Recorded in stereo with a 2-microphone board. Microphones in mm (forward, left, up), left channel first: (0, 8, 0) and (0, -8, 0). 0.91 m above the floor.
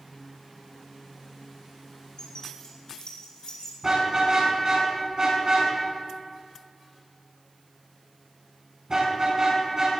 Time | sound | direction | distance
2.2 | keys jangling | 60° left (ahead or behind) | 3.5 m
3.8 | a car horn | 30° right (ahead or behind) | 5 m